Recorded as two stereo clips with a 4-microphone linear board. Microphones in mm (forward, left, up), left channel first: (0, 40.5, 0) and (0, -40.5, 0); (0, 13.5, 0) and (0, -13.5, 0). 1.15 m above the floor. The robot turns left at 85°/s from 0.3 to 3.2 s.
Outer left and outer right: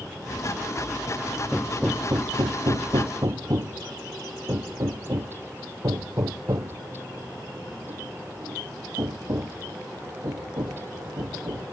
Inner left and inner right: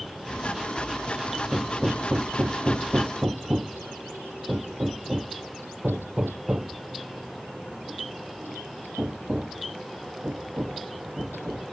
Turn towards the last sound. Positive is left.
turn(degrees=-55)  # may be behind; listen again after turning